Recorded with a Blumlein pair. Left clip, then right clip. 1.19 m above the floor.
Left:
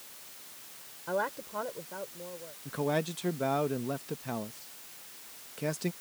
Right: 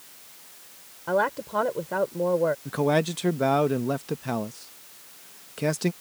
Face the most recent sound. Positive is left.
turn(degrees=-20)